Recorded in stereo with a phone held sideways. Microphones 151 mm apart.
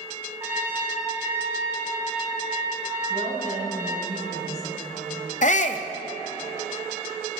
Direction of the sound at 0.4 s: 20° right (ahead or behind).